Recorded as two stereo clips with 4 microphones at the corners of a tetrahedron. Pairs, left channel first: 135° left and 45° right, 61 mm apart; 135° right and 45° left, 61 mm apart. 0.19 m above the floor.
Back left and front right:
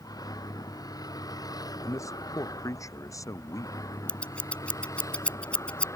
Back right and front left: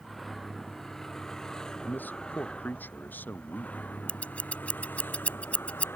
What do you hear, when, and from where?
0.0 s a vehicle: 135° left; by 6.0 s 170° left
1.8 s a man speaking: 165° left
4.1 s scissors: 175° right